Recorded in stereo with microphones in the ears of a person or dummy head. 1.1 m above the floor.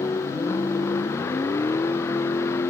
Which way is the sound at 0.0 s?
15° left (ahead or behind).